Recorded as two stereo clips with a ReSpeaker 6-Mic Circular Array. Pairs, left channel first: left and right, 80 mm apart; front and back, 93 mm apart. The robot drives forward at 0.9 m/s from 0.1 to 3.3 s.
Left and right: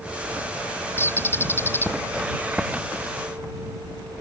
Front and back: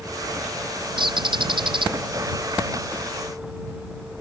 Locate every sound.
1.0 s a bird: 150° left